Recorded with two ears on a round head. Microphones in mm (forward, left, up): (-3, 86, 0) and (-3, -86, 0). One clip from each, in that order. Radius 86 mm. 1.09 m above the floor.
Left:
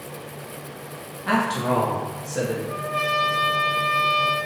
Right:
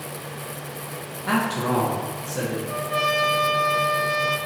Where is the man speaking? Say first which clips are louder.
Left 1 dB; 5° left (ahead or behind), 0.7 m.